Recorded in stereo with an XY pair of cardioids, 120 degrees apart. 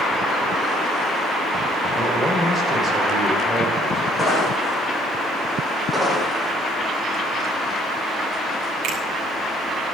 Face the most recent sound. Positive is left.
turn(degrees=-65)